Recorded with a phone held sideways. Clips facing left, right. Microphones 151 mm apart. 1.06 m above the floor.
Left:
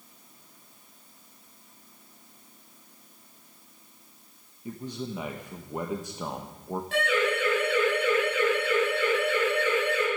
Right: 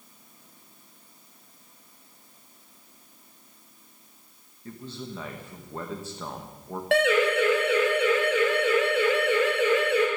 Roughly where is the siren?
Right.